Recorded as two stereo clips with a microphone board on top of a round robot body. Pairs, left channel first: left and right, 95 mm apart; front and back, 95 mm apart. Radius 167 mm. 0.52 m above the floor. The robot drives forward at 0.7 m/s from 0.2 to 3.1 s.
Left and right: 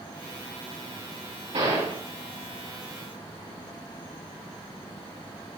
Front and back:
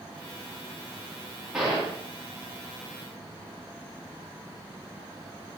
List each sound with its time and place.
1.5 s a gunshot: 100° right, 4.5 m